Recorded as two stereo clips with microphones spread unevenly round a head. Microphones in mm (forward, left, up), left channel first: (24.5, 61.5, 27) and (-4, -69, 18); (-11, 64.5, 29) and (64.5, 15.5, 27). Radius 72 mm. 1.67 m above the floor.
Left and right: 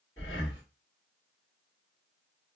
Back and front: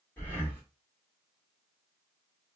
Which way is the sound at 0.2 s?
100° left.